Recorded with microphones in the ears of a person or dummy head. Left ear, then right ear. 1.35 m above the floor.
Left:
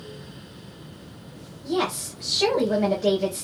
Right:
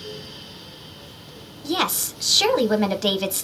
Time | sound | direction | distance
1.6 | a woman speaking | 45° right (ahead or behind) | 0.6 m